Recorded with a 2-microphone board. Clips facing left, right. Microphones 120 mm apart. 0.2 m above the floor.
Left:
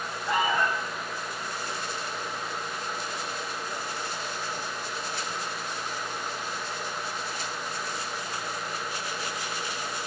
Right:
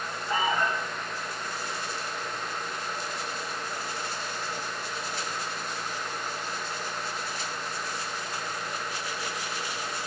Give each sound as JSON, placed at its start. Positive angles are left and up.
{"t": 0.2, "sound": "an alarm", "side_deg": 70, "distance_m": 10.0}